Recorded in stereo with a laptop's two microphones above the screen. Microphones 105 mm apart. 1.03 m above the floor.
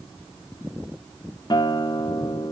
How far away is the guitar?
About 0.6 m.